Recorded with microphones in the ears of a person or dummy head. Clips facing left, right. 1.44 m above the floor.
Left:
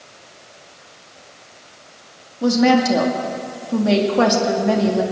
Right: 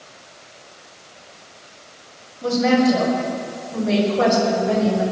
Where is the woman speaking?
80° left, 2 m.